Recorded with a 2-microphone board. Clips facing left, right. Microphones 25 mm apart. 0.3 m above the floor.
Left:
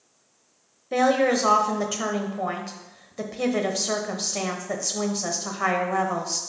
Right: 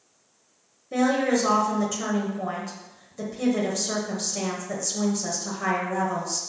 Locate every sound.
0.9 s a woman speaking: 30° left (ahead or behind), 1.0 m